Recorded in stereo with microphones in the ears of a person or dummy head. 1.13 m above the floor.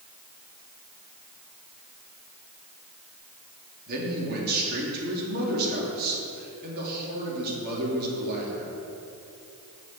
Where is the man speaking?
55° right (ahead or behind), 2.5 m.